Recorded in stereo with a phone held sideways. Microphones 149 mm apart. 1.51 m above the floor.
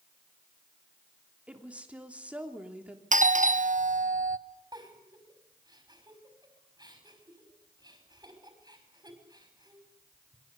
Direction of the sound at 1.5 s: 10° right (ahead or behind).